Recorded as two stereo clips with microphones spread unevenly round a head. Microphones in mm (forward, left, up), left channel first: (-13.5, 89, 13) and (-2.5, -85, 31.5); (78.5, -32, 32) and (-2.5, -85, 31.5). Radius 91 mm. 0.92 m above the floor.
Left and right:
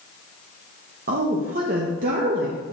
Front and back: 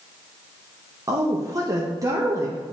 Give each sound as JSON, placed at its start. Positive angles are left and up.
{"t": 1.1, "sound": "a woman speaking", "azimuth_deg": -105, "distance_m": 0.9}